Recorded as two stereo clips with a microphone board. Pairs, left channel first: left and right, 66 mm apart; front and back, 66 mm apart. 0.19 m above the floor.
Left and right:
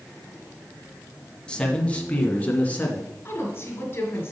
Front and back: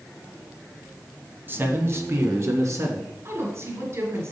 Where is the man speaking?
155° left, 1.2 m; by 3.1 s 150° left, 2 m.